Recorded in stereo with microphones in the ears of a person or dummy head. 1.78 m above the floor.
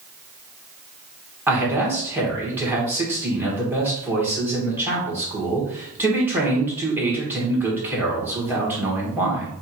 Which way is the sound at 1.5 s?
15° right (ahead or behind).